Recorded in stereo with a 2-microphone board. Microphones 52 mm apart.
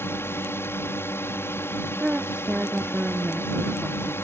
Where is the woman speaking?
25° right (ahead or behind).